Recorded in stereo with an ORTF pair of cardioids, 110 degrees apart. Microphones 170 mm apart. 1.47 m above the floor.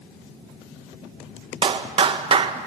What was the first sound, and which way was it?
A clap, 35° right.